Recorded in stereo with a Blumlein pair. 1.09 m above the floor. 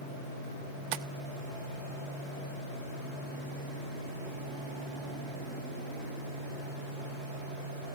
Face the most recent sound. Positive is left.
turn(degrees=-45)